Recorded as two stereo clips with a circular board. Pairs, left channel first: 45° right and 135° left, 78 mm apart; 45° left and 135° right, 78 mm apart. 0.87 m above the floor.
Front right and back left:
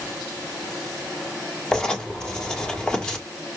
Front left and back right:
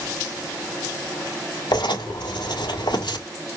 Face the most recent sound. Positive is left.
turn(degrees=35)